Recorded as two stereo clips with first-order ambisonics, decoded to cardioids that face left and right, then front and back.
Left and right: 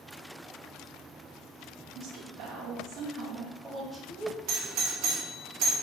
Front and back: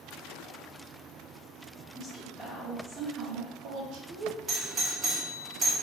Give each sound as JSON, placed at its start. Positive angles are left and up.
{"t": 1.9, "sound": "a woman speaking", "azimuth_deg": -80, "distance_m": 1.1}
{"t": 4.5, "sound": "a doorbell", "azimuth_deg": -115, "distance_m": 0.9}